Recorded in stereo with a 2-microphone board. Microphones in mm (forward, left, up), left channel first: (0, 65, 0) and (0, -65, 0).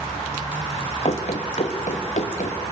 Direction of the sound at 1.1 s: 50° left (ahead or behind).